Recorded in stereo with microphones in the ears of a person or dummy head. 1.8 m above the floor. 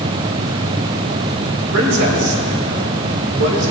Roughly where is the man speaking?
Right.